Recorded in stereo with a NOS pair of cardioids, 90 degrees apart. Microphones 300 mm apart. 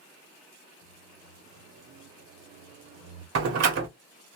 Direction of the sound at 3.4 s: 55° right.